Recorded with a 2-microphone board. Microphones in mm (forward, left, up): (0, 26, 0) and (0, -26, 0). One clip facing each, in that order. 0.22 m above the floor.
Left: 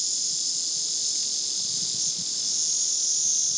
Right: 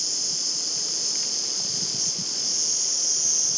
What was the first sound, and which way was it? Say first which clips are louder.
An insect: right 3 dB; 45° right (ahead or behind).